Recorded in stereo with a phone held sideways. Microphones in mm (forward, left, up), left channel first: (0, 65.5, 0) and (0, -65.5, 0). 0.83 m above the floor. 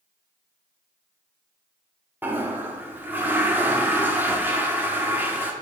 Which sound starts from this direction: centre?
A toilet flushing, at 2.2 s.